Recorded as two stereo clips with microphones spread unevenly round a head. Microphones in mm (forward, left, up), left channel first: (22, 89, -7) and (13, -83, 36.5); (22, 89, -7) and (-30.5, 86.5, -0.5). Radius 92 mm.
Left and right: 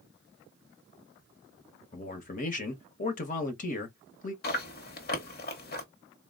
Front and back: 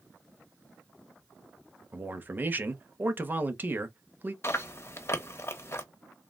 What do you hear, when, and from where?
1.9 s a man speaking: 125° left, 1.0 m
4.4 s chewing: 45° left, 1.1 m